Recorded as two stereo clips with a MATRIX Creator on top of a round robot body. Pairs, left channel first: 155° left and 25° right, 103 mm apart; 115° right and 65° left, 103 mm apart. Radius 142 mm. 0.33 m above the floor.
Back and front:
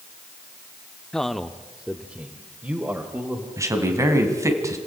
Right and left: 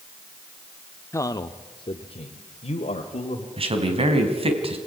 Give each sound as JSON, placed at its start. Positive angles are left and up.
{"t": 1.1, "sound": "a man speaking", "azimuth_deg": -125, "distance_m": 1.0}
{"t": 3.6, "sound": "a man speaking", "azimuth_deg": 40, "distance_m": 3.0}